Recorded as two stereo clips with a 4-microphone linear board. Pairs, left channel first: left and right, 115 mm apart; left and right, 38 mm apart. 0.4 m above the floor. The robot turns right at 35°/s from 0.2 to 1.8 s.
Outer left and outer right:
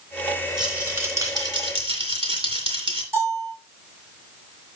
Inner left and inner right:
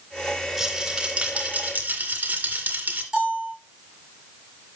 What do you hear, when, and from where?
0.6 s a rattle: 175° right, 2.5 m; by 3.0 s 130° right, 2.5 m
3.1 s a bell: 25° right (ahead or behind), 7 m